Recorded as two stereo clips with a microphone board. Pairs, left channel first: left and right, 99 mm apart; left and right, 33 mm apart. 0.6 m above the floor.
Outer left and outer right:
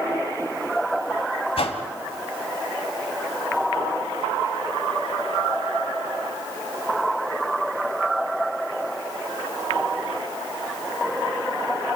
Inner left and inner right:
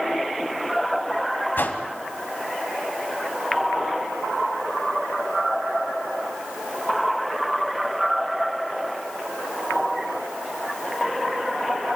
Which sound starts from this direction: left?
A whoosh, at 1.6 s.